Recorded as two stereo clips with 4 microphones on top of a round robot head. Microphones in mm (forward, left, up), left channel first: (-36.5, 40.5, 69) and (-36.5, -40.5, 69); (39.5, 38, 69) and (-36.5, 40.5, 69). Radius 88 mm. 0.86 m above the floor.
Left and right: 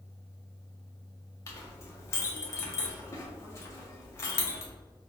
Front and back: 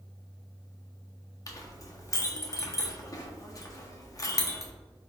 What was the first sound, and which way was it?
A clink, 40° left.